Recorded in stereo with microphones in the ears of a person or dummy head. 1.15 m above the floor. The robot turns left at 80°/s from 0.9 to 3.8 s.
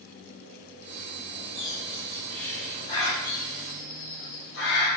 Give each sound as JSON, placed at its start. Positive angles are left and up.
{"t": 1.6, "sound": "a bird", "side_deg": -60, "distance_m": 3.5}